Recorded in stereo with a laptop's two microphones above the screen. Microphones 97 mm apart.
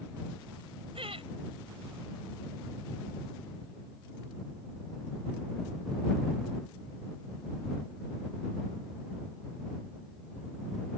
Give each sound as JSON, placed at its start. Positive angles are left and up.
{"t": 0.9, "sound": "laughter", "side_deg": -75}